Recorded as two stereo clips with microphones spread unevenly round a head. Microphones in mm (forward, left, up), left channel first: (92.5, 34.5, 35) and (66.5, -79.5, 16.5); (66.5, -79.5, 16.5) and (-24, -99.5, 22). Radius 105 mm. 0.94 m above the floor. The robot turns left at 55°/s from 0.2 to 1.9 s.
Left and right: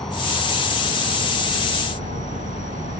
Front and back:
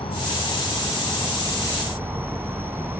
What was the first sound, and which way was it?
An insect, 10° right.